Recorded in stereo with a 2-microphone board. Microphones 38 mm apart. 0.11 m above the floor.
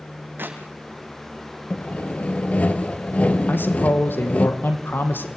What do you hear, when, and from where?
0.4 s a clap: 70° right (ahead or behind), 4.5 m
1.7 s sawing: 40° left (ahead or behind), 1.5 m
3.5 s a man speaking: 70° left (ahead or behind), 3.5 m